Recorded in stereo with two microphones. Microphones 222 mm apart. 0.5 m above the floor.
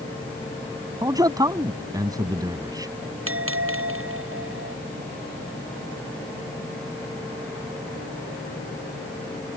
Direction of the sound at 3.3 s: 65° right (ahead or behind).